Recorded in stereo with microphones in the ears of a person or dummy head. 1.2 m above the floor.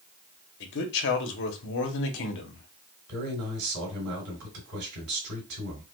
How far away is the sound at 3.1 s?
About 2.5 m.